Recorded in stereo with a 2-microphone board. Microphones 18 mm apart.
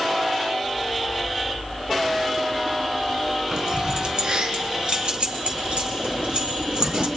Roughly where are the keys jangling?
Right.